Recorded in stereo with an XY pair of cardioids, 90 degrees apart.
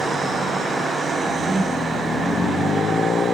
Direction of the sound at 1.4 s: 25° right.